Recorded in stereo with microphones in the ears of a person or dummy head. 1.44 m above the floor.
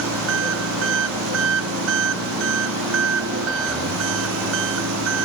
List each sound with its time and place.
0.0 s an engine running: 75° right (ahead or behind)